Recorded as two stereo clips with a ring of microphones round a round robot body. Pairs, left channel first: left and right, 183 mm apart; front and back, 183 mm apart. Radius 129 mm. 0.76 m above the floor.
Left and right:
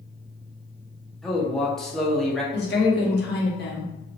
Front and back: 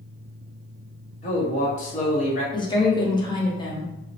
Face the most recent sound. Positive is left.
turn(degrees=65)